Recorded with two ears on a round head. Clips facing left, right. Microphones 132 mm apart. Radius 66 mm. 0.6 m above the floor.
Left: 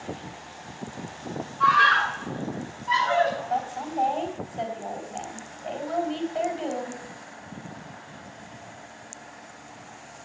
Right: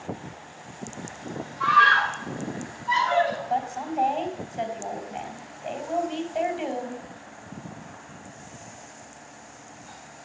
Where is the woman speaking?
5° right (ahead or behind), 3.5 m.